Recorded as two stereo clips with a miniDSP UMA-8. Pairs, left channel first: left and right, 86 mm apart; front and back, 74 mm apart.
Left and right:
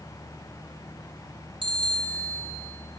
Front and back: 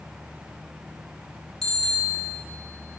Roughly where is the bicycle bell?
Right.